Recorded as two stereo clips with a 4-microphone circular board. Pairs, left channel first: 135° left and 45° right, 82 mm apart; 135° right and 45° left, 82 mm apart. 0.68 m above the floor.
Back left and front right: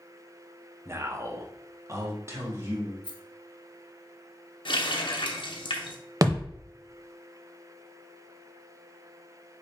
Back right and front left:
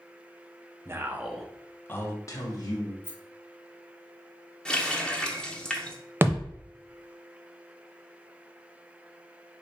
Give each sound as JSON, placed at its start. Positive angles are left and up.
{"t": 0.8, "sound": "a man speaking", "azimuth_deg": 0, "distance_m": 0.7}
{"t": 3.0, "sound": "a rattle", "azimuth_deg": 110, "distance_m": 0.8}
{"t": 4.7, "sound": "a running tap", "azimuth_deg": 145, "distance_m": 0.7}
{"t": 6.2, "sound": "a thud", "azimuth_deg": -10, "distance_m": 0.6}